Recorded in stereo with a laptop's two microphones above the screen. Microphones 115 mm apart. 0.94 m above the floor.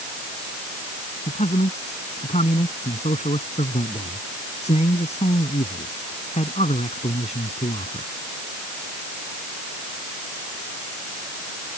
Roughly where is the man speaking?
Left.